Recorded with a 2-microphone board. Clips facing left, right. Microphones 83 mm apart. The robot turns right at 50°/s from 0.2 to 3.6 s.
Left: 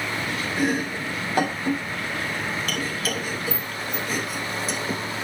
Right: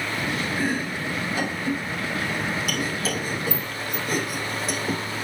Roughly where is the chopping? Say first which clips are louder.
Left 2 dB; left.